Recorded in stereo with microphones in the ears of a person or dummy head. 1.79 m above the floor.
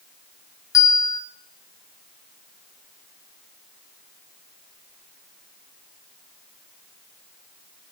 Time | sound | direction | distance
0.7 | a bell | 15° left (ahead or behind) | 2 m